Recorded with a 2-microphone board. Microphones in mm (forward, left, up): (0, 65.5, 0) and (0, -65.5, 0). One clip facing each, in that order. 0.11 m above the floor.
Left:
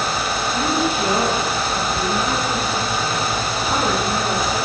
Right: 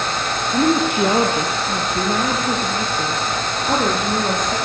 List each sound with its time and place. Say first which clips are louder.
0.5 s a woman speaking: right 5 dB; 60° right (ahead or behind), 4 m; by 4.6 s 75° right (ahead or behind), 8 m